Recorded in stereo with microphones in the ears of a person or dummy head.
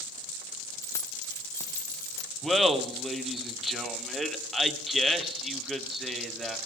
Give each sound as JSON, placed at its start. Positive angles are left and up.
{"t": 0.8, "sound": "keys jangling", "side_deg": 25, "distance_m": 0.8}
{"t": 2.4, "sound": "laughter", "side_deg": -5, "distance_m": 1.6}